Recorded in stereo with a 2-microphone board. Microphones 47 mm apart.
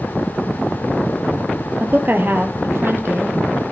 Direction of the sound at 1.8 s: 40° right (ahead or behind).